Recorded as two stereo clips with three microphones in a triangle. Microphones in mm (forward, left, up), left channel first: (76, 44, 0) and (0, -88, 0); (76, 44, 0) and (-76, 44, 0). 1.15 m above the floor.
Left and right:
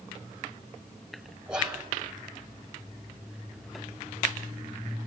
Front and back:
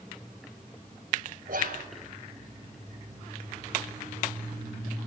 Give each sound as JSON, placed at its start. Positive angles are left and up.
{"t": 1.5, "sound": "whispering", "azimuth_deg": 155, "distance_m": 5.0}